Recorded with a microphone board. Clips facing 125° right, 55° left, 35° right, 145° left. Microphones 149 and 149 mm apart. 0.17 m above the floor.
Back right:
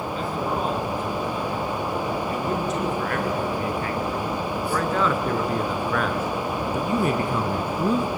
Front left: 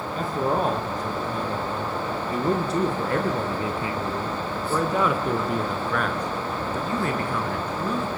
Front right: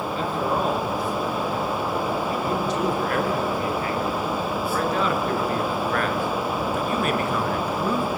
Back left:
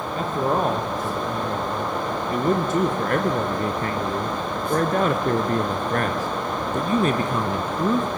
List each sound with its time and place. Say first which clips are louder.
0.1 s a man speaking: front left 4 dB, back left 3 dB; 100° left, 4.5 m; by 8.1 s 155° right, 2 m